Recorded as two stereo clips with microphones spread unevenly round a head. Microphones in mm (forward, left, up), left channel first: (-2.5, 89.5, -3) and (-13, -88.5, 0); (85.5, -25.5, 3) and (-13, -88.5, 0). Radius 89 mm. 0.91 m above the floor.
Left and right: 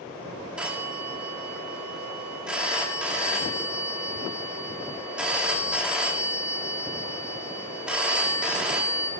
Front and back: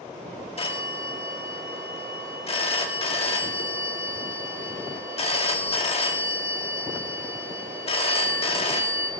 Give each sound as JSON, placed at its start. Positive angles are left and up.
{"t": 0.6, "sound": "a phone ringing", "azimuth_deg": -10, "distance_m": 1.5}